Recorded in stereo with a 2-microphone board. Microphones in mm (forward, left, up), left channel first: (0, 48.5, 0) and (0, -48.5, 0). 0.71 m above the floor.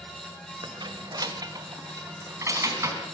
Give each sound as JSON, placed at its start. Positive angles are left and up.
{"t": 0.6, "sound": "keys jangling", "side_deg": -55, "distance_m": 1.5}